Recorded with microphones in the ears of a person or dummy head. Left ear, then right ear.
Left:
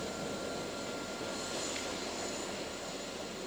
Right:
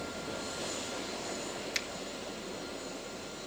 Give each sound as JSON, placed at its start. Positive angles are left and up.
{"t": 1.7, "sound": "a finger snap", "side_deg": -80, "distance_m": 1.5}